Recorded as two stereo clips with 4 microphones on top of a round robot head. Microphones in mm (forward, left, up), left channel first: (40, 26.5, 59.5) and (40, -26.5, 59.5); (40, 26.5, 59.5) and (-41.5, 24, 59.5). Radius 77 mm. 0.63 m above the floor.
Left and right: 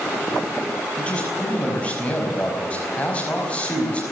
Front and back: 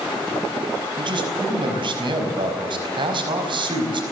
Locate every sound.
1.0 s a man speaking: 160° left, 5 m